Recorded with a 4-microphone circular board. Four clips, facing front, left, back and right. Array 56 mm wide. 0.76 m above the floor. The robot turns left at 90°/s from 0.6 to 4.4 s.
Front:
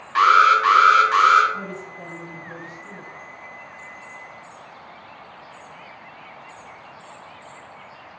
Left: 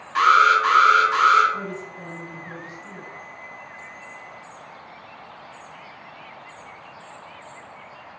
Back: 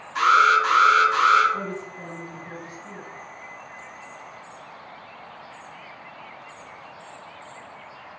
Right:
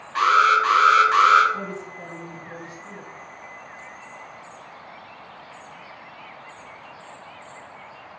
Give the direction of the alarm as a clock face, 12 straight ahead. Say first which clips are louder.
Left 2 dB, front 3 dB; 12 o'clock.